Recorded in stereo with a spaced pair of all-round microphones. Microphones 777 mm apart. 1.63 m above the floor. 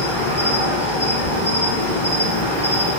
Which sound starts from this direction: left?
An insect, at 0.0 s.